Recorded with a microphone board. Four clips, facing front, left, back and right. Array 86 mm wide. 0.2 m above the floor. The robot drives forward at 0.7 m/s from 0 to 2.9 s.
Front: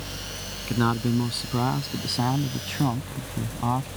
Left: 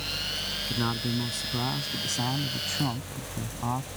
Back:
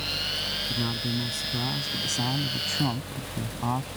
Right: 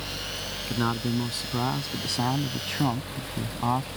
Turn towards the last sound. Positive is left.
turn(degrees=-60)